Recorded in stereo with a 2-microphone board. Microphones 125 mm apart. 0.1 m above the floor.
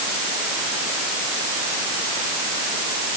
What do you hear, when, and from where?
Only background noise.